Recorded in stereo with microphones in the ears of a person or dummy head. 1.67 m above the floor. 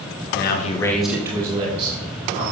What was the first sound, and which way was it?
A man speaking, 60° left (ahead or behind).